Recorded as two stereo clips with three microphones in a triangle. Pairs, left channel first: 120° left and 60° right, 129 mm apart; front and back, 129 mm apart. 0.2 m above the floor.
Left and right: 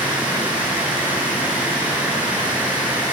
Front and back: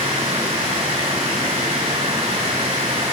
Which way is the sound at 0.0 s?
140° right.